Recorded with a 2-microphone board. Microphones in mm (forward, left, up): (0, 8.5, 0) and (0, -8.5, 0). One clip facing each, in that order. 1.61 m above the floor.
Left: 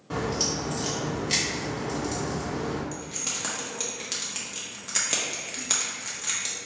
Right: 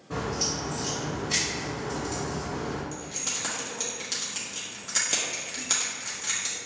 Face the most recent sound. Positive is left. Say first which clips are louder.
# even
turn(degrees=5)  # may be behind; listen again after turning